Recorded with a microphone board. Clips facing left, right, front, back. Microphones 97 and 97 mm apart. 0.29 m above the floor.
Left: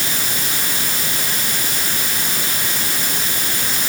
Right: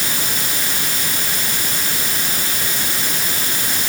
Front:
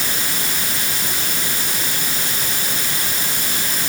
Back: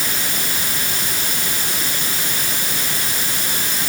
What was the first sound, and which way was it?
Only background noise.